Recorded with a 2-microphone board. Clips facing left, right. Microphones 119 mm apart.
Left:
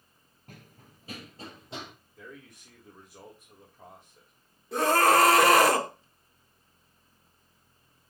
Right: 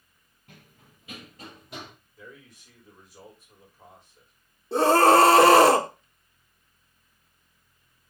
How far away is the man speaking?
About 3.5 m.